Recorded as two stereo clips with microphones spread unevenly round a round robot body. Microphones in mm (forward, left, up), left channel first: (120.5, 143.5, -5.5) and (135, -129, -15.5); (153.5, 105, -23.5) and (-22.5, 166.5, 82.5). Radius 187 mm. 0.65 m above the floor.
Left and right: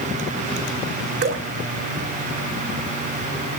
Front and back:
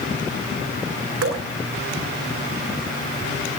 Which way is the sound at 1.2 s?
155° right.